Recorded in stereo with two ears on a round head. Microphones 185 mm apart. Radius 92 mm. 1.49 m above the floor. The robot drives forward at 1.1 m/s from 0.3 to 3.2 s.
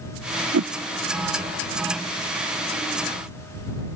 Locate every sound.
0.5 s a whoosh: 75° right (ahead or behind); by 0.7 s 80° right